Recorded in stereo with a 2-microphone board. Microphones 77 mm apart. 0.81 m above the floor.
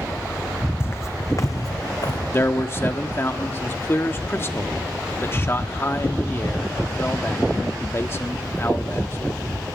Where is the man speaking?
30° left (ahead or behind), 1.2 m.